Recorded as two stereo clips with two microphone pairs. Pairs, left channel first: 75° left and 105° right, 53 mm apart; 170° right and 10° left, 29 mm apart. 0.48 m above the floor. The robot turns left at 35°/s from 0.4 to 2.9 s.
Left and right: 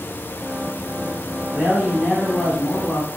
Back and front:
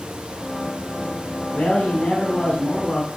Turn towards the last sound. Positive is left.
turn(degrees=95)